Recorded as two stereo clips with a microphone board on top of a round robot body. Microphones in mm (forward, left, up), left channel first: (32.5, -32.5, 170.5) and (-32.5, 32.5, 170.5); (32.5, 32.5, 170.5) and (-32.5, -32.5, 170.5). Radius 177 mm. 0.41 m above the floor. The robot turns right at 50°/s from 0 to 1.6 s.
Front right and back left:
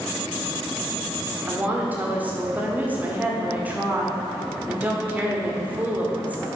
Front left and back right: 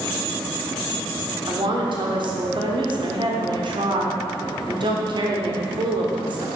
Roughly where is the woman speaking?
Behind.